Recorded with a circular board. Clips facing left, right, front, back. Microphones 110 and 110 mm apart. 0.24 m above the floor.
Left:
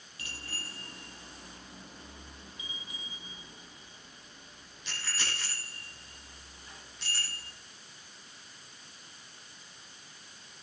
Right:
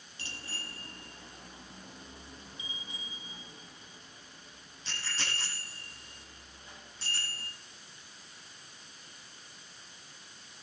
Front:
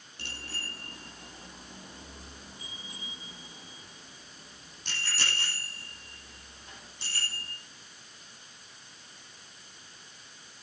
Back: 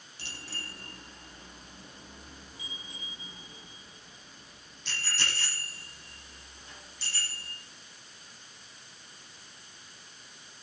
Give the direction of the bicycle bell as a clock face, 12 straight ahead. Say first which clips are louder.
Even, front 1 dB; 1 o'clock.